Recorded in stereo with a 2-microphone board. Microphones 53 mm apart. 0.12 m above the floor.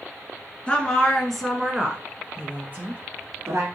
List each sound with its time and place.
0.7 s a woman speaking: 20° left (ahead or behind), 1.2 m; by 3.7 s 45° right (ahead or behind), 1.6 m